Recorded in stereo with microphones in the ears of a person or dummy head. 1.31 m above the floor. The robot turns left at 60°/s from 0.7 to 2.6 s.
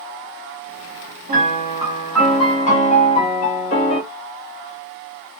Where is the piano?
140° right, 0.7 m; by 4.0 s 140° left, 0.7 m.